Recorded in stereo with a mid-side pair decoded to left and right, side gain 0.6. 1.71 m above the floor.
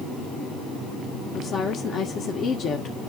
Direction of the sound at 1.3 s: 50° left.